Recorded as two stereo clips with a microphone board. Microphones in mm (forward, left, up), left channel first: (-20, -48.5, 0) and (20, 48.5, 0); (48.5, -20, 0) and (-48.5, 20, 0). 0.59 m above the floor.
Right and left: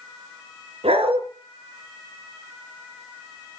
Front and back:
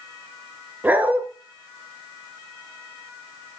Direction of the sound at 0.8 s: 85° left.